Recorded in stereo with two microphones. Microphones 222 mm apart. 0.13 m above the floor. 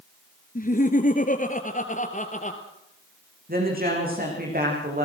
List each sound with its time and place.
0.6 s laughter: 40° left (ahead or behind), 1.6 m; by 2.6 s 35° left (ahead or behind), 2.5 m
3.5 s a woman speaking: 40° right (ahead or behind), 9 m